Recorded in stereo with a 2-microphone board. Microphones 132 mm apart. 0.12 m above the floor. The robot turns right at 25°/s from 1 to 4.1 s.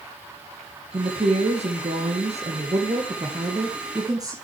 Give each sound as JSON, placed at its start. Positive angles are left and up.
{"t": 0.9, "sound": "a woman speaking", "azimuth_deg": -115, "distance_m": 2.5}